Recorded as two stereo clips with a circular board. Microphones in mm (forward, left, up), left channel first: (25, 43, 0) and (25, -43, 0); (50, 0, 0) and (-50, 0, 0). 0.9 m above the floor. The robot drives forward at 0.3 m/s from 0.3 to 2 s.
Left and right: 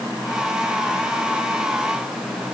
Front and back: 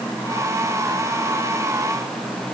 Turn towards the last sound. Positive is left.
No sound to turn to.